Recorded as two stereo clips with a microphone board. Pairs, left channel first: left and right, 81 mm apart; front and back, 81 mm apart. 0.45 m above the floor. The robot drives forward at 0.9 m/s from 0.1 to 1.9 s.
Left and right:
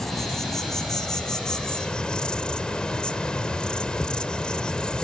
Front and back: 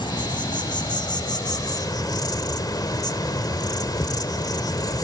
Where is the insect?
5° left, 3 m; by 5.0 s 15° left, 1.4 m.